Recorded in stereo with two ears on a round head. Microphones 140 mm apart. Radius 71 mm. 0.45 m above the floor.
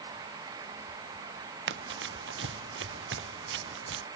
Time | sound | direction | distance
1.7 | running footsteps | 90° right | ?